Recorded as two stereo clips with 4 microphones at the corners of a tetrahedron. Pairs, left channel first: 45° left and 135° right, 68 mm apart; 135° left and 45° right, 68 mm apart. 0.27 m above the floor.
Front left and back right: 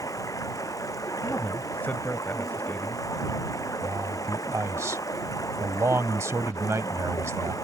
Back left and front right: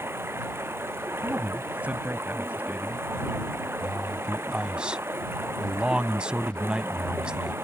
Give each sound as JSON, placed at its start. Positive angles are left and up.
{"t": 0.0, "sound": "running water", "azimuth_deg": 10}
{"t": 1.2, "sound": "a woman speaking", "azimuth_deg": 5}
{"t": 3.8, "sound": "a man speaking", "azimuth_deg": -115}